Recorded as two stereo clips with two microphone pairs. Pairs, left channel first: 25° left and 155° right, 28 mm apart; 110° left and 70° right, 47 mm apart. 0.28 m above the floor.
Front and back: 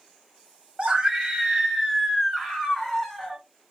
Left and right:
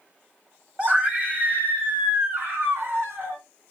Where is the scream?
110° right, 1.4 m; by 3.4 s 45° right, 2.5 m.